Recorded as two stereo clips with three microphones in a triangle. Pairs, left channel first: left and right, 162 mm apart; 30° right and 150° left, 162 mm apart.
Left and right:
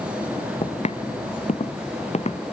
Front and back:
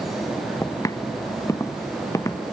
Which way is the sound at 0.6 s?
40° left.